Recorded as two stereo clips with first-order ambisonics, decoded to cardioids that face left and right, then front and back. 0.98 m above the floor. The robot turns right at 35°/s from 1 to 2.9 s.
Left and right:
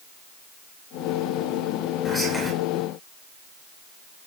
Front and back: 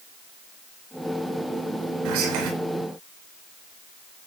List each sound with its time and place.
2.0 s whispering: 165° left, 4.5 m; by 2.5 s straight behind, 4.5 m